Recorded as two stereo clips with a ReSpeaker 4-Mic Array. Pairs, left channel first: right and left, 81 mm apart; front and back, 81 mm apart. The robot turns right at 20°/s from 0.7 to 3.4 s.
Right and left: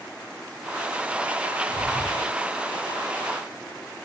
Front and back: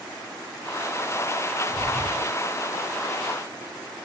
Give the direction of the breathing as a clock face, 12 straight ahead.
2 o'clock.